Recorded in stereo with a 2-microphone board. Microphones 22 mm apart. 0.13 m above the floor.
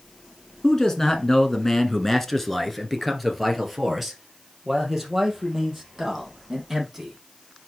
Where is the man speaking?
25° left (ahead or behind), 1.3 m; by 7.2 s 10° right (ahead or behind), 5 m.